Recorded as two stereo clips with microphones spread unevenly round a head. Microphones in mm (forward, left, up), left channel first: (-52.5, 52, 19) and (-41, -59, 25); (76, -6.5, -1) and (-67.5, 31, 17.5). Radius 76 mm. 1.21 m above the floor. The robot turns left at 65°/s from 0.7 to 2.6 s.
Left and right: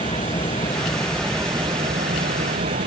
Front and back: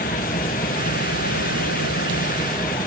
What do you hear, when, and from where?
0.0 s an engine running: 40° left; by 2.9 s 85° right